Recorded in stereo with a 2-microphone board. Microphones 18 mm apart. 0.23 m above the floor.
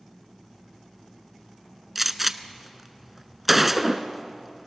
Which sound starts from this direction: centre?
A gunshot, at 1.9 s.